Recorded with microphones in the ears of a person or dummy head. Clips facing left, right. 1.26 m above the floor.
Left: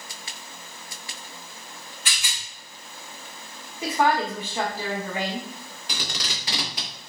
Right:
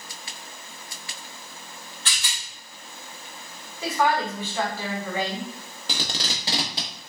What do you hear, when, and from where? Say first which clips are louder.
2.0 s a rattle: even; 10° left (ahead or behind), 1.4 m
3.8 s a woman speaking: left 1 dB; 15° left (ahead or behind), 1.5 m
5.9 s tape being pulled: right 3 dB; 30° right (ahead or behind), 0.9 m